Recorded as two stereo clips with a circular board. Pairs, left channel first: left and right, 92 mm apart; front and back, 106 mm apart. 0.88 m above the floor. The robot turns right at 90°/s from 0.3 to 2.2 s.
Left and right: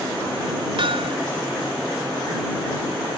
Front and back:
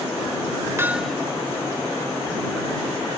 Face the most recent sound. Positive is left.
turn(degrees=10)